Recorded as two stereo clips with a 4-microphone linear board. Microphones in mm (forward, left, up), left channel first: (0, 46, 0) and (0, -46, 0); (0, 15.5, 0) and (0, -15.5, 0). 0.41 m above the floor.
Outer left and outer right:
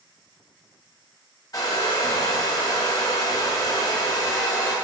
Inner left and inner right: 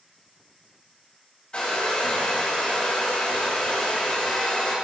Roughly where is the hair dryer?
Left.